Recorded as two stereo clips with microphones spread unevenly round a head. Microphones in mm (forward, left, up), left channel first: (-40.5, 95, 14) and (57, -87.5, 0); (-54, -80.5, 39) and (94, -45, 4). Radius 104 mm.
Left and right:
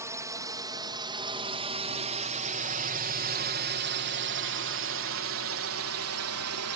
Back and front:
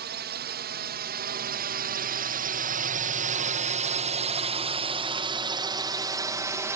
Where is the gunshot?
I don't hear a gunshot.